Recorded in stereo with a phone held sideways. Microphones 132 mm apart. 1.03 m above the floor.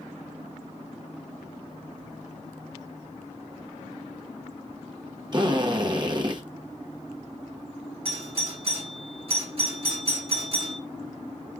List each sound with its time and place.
5.3 s a drill: 35° right (ahead or behind), 1.0 m
8.1 s a doorbell: 45° right (ahead or behind), 1.8 m